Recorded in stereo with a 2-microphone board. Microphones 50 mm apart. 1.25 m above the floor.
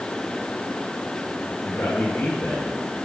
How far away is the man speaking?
About 6 m.